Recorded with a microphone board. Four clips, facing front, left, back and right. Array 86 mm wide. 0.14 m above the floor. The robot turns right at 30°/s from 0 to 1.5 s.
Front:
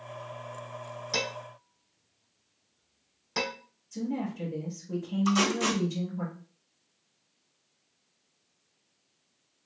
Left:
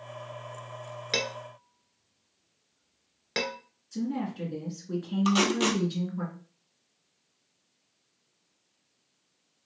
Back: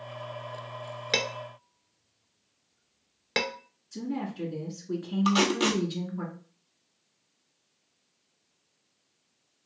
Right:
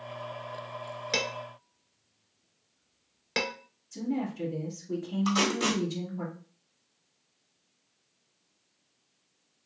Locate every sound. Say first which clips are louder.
1.1 s dishes clattering: left 1 dB, back 3 dB; 165° left, 1.3 m; by 3.5 s straight behind, 1.3 m
3.9 s a woman speaking: even, front 1 dB; 135° left, 1.9 m
5.2 s tape being pulled: left 3 dB, back 2 dB; 140° left, 1.5 m